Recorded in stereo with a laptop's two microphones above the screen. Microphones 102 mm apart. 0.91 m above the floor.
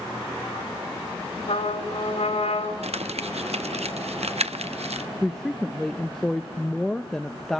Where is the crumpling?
85° right, 0.7 m.